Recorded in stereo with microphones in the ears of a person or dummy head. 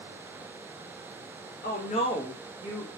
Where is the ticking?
No ticking in this recording.